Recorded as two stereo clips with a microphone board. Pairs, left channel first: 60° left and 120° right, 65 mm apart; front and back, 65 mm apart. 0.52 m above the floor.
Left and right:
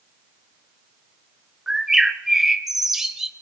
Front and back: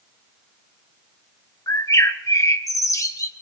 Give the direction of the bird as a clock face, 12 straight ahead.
1 o'clock.